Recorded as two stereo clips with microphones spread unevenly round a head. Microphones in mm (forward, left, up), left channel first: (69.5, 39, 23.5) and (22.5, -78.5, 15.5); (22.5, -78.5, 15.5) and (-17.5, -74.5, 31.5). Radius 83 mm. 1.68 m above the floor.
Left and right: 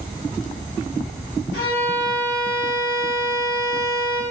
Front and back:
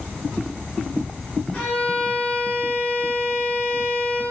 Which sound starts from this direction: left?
A violin, at 1.5 s.